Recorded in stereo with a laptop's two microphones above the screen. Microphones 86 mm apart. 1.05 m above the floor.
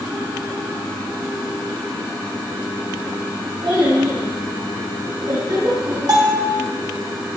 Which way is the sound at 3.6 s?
80° right.